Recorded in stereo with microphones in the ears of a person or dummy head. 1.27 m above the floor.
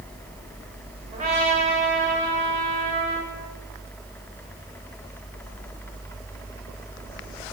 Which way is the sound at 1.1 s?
35° right (ahead or behind).